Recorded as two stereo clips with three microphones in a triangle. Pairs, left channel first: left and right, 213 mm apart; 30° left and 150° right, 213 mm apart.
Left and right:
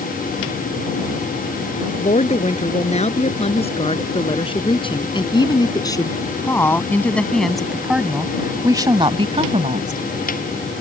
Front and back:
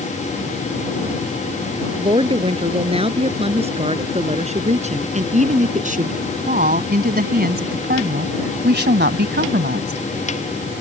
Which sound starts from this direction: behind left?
A woman speaking, at 2.0 s.